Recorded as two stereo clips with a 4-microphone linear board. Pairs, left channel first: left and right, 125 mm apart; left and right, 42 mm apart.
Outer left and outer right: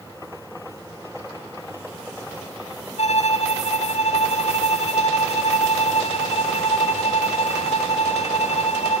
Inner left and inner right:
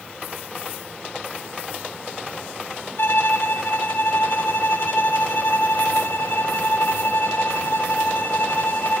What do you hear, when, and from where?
3.0 s a violin: 60° left (ahead or behind), 0.5 m